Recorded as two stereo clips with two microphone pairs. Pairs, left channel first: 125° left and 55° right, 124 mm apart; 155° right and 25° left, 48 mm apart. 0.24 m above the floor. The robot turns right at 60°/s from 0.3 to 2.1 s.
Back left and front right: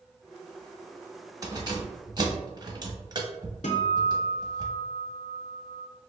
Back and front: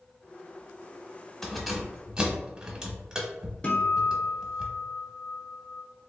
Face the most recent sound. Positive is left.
turn(degrees=140)